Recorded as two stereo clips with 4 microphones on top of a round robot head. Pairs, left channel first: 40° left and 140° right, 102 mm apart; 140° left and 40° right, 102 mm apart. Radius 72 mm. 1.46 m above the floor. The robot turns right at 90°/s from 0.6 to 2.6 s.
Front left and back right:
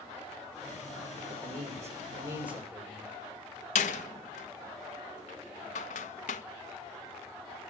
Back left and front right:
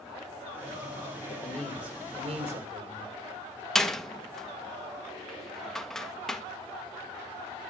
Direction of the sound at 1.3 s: 170° right.